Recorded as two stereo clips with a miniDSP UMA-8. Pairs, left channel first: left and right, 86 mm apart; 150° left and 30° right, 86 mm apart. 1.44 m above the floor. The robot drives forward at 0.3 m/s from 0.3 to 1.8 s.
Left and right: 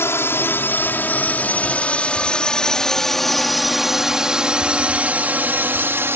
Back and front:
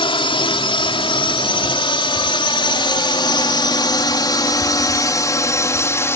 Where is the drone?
150° left; by 6.2 s 150° right.